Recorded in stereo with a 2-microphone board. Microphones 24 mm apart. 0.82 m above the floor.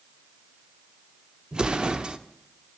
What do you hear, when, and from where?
1.5 s an explosion: 40° right (ahead or behind), 0.7 m